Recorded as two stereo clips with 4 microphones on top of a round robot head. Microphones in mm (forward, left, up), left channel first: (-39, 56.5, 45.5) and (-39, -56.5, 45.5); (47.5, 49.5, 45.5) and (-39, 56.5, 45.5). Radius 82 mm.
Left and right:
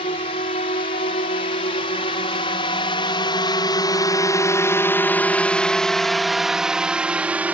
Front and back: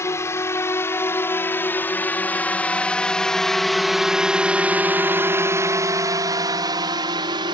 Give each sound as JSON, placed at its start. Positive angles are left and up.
{"t": 0.0, "sound": "a drone", "azimuth_deg": 50}